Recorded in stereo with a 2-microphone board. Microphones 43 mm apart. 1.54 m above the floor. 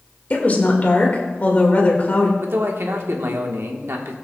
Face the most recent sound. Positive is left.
turn(degrees=-75)  # may be behind; listen again after turning